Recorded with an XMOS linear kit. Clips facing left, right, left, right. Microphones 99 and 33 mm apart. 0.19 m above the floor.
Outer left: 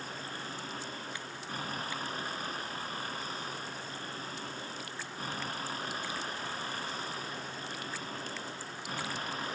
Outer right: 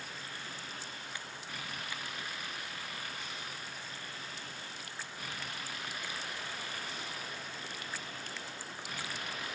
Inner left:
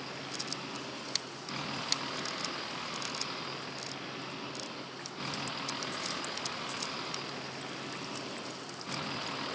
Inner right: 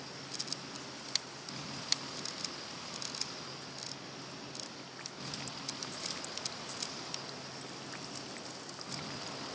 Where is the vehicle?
40° left (ahead or behind).